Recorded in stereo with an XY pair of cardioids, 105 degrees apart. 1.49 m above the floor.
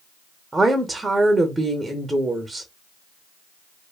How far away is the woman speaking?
About 0.6 m.